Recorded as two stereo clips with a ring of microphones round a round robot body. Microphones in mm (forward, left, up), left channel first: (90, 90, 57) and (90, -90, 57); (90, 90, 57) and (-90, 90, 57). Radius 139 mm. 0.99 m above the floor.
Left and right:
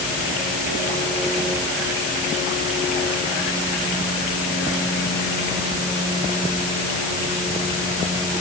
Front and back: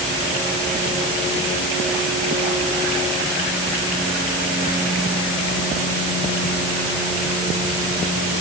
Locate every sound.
Only background noise.